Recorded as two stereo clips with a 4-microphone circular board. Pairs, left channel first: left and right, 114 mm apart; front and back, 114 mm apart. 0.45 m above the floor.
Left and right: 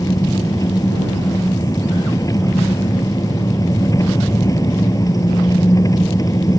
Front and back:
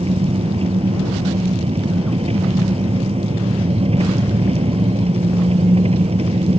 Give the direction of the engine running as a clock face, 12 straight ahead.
7 o'clock.